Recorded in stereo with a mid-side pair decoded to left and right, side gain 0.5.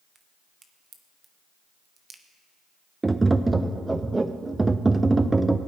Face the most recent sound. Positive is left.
turn(degrees=-20)